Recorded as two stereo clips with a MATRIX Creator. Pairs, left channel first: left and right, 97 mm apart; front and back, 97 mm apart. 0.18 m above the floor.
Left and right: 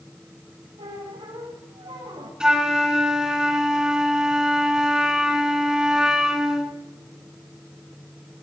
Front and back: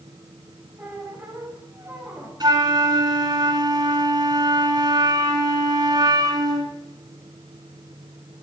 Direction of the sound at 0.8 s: 105° right.